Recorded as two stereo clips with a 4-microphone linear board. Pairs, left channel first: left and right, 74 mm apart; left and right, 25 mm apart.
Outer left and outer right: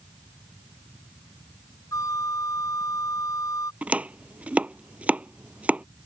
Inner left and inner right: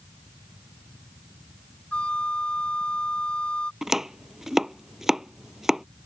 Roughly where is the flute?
Left.